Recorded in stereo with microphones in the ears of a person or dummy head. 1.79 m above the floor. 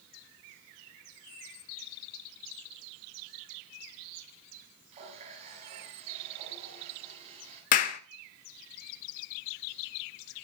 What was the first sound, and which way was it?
A running tap, 40° right (ahead or behind).